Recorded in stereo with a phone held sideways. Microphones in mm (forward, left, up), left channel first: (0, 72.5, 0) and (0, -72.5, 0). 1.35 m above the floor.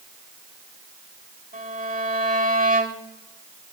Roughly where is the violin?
Right.